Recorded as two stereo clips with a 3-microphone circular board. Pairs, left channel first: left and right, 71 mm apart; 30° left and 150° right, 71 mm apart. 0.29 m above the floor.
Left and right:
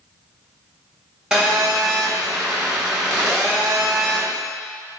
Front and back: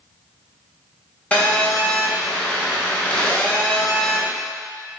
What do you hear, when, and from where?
1.3 s a phone buzzing: 15° right, 0.6 m